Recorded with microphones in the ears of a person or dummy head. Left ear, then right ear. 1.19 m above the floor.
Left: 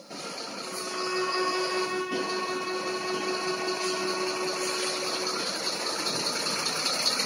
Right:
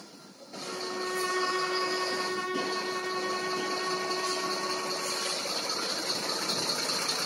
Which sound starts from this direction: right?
A violin, at 0.6 s.